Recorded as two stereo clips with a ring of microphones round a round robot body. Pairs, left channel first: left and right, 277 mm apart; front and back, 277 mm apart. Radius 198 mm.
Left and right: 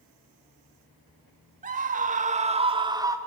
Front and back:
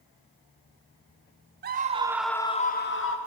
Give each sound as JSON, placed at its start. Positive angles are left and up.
{"t": 1.6, "sound": "a scream", "azimuth_deg": -140, "distance_m": 1.4}